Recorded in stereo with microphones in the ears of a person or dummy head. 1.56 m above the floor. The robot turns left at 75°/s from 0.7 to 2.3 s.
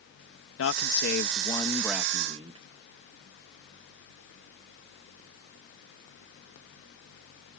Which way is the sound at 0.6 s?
80° left.